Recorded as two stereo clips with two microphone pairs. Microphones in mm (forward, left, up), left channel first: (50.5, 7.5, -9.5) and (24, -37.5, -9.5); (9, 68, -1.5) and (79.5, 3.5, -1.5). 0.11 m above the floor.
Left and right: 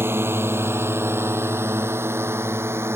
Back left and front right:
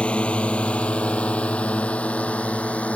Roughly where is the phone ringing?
I don't hear a phone ringing.